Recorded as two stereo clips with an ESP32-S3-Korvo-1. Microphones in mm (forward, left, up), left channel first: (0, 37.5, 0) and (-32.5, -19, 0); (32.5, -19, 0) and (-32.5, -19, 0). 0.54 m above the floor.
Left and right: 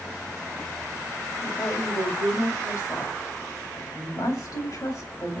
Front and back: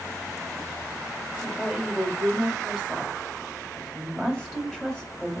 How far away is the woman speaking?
About 1.8 m.